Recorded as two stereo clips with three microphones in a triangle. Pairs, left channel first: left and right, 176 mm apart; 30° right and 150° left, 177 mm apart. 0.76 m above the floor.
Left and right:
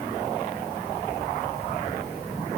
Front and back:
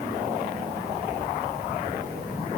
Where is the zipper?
I don't hear a zipper.